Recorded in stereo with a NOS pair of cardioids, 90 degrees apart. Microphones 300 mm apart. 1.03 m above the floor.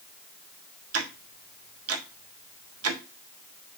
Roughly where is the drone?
I don't hear a drone.